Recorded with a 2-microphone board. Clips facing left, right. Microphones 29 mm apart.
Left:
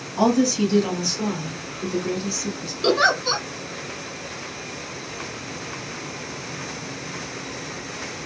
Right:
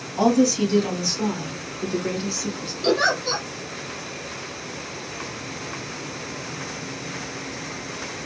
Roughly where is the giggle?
Left.